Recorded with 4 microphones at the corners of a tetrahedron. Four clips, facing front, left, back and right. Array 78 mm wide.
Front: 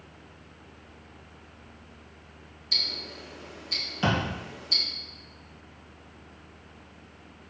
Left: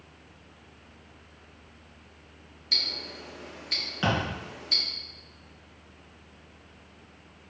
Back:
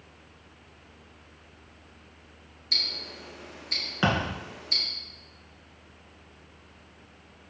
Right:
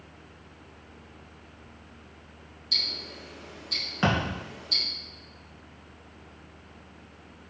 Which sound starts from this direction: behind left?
Ticking, at 2.7 s.